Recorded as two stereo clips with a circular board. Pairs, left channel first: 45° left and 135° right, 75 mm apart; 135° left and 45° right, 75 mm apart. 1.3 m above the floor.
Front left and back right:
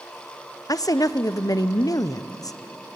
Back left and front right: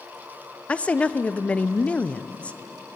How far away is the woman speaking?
About 0.5 m.